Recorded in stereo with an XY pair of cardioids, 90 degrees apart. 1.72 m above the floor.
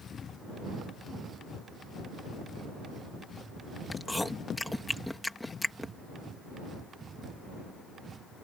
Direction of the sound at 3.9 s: 10° left.